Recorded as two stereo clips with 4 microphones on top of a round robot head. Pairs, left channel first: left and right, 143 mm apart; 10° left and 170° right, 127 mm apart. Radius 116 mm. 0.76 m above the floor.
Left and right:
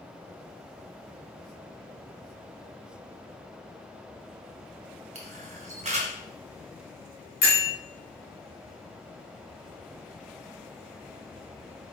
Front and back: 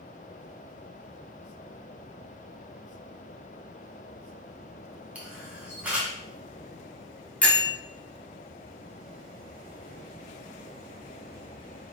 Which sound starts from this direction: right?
A camera shutter, at 5.2 s.